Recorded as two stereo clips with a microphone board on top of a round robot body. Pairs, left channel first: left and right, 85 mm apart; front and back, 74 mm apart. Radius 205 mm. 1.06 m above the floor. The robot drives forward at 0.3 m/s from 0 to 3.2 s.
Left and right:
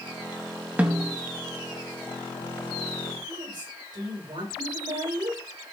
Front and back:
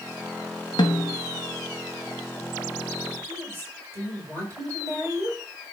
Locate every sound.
0.8 s a snare drum: 15° right, 0.6 m; by 1.2 s 20° right, 0.5 m
3.3 s a woman speaking: 125° right, 6 m